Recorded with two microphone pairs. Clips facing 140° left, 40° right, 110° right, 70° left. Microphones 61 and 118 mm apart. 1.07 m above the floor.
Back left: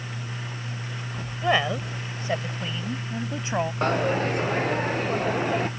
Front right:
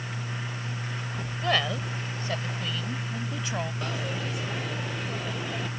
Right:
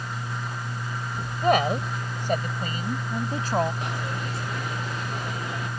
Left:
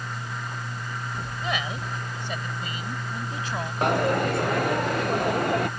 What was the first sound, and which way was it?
A woman speaking, 145° right.